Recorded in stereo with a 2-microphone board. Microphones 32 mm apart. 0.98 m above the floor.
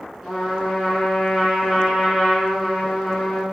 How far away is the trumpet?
About 5.5 m.